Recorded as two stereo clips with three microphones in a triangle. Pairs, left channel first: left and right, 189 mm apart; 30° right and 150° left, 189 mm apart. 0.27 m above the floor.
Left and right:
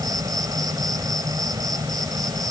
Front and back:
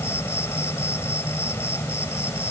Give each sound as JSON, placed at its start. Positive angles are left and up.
{"t": 0.0, "sound": "an insect", "azimuth_deg": -80}